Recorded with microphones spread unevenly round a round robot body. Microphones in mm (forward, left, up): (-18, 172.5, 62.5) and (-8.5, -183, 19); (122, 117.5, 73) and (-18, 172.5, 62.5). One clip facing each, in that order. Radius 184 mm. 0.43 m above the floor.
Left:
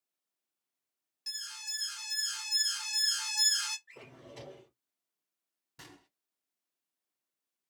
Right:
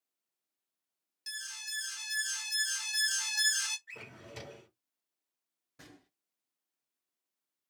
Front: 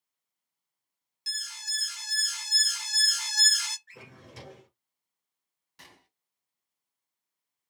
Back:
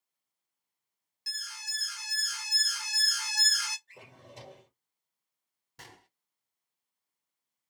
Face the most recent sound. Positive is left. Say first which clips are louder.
# even, back 3 dB
turn(degrees=125)